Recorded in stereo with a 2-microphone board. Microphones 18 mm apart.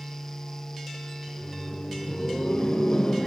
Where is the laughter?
35° left (ahead or behind), 1.2 m; by 3.3 s 45° left (ahead or behind), 1.4 m.